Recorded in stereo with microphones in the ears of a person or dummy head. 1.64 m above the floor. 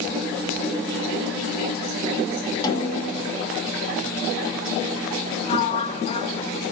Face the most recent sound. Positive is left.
turn(degrees=30)  # may be behind; listen again after turning